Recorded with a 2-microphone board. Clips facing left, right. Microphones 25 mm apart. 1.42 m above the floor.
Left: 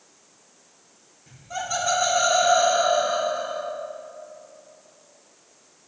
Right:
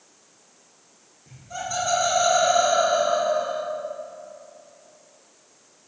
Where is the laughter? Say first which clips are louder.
Left 2 dB; 20° left (ahead or behind), 2.5 m; by 3.6 s 15° left (ahead or behind), 3.5 m.